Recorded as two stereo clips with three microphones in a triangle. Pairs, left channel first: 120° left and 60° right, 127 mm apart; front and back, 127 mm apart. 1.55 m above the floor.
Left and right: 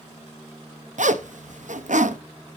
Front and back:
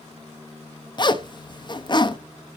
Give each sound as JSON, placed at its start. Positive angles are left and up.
{"t": 1.0, "sound": "a zipper", "azimuth_deg": -50, "distance_m": 1.0}